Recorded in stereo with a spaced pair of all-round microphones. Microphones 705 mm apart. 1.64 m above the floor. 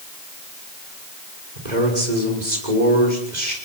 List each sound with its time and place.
1.6 s a man speaking: 80° right, 6 m